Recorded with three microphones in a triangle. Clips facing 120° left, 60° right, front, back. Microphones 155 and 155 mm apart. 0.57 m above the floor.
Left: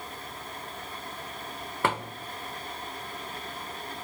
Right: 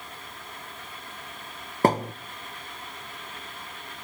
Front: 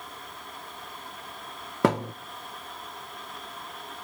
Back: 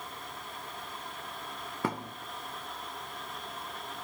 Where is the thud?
5° right, 0.5 m.